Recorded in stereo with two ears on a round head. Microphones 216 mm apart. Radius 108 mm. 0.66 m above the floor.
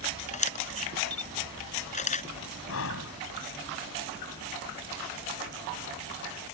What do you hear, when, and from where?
0.3 s a camera shutter: 30° left (ahead or behind)
2.7 s breathing: 60° left (ahead or behind)